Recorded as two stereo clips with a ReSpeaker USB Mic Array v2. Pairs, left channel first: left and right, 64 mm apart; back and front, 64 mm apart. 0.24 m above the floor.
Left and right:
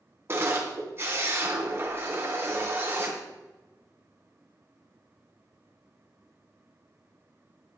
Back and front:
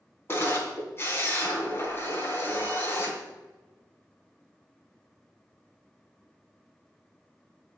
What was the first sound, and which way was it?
A camera shutter, 135° right.